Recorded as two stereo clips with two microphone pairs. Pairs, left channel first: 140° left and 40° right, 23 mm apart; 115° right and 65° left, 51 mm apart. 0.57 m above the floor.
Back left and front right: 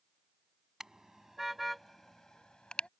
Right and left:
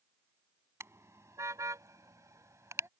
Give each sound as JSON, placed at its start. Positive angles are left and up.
{"t": 0.8, "sound": "a car horn", "azimuth_deg": 30}